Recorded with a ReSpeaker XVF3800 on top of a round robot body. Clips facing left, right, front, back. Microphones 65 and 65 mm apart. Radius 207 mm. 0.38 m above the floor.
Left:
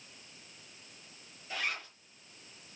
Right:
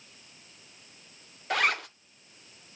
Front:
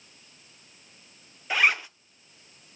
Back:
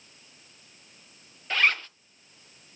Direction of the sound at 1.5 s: 75° right.